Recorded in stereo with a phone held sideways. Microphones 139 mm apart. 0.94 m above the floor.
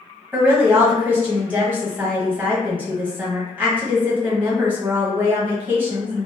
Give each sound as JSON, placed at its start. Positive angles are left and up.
{"t": 0.3, "sound": "a woman speaking", "side_deg": -10, "distance_m": 1.2}